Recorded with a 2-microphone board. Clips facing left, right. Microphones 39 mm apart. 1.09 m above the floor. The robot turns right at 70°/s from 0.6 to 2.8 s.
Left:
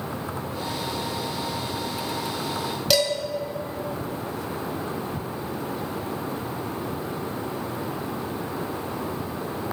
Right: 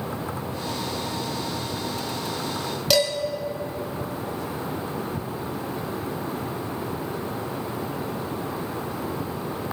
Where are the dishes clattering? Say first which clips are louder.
Right 1 dB; centre (ahead or behind), 1.2 m.